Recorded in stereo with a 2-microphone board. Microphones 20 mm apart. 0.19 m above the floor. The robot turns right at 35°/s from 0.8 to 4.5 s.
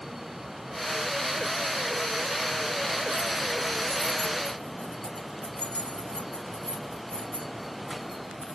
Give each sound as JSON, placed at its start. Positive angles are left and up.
{"t": 3.1, "sound": "keys jangling", "side_deg": 20, "distance_m": 3.0}